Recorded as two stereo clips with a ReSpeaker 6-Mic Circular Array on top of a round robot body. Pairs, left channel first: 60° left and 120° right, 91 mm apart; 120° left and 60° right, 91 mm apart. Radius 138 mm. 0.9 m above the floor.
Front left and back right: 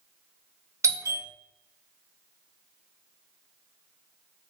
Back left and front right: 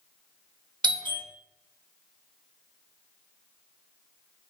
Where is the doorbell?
70° right, 2 m.